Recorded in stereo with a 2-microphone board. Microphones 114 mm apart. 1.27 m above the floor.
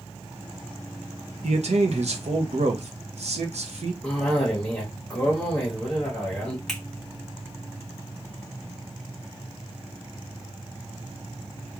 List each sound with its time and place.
1.4 s a man speaking: 70° right (ahead or behind), 0.8 m
4.0 s a cough: 5° left (ahead or behind), 1.4 m
6.7 s a finger snap: 5° left (ahead or behind), 1.6 m